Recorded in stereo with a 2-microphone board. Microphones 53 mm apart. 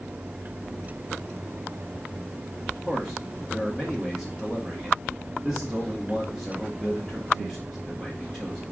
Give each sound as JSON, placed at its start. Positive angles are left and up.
{"t": 2.9, "sound": "a man speaking", "side_deg": -5, "distance_m": 1.8}